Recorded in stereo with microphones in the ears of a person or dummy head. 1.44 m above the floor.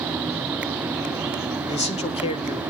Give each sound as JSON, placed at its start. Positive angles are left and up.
{"t": 1.7, "sound": "a man speaking", "side_deg": 35, "distance_m": 0.9}